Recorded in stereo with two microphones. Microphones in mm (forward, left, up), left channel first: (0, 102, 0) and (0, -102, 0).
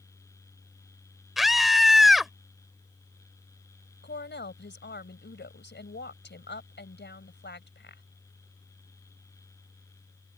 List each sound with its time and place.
1.4 s a scream: centre (ahead or behind)
4.0 s a woman speaking: 60° left (ahead or behind)